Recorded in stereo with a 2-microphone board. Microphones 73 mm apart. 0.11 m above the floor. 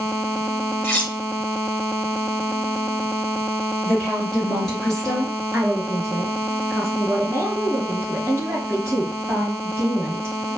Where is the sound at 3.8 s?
Centre (ahead or behind), 2.0 m.